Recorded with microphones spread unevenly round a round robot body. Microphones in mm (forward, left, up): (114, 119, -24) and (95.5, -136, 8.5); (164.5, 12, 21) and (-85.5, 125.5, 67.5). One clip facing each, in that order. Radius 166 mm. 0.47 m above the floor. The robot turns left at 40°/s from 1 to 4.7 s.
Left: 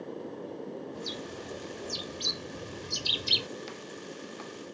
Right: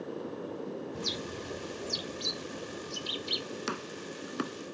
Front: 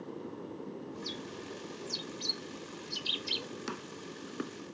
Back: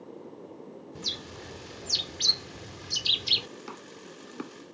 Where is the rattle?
No rattle in this recording.